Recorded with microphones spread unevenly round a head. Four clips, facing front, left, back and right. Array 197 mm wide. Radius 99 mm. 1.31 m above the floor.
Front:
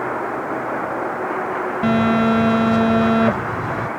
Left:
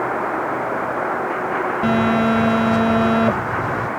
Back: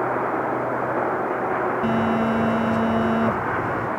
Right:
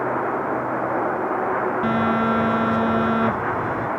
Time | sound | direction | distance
1.8 | a phone buzzing | 5° left | ?